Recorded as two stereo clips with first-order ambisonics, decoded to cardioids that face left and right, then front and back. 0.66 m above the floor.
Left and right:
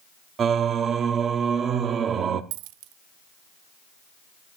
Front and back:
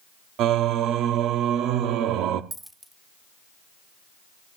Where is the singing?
150° right, 0.9 m.